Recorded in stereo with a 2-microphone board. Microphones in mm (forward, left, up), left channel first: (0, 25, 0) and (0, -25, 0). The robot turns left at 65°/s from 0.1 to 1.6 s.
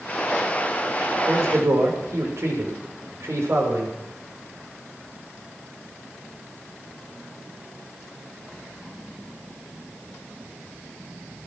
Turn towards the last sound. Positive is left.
turn(degrees=-65)  # may be behind; listen again after turning